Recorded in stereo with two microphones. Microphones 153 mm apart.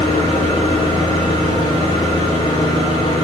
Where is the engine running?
30° left (ahead or behind), 3.5 m.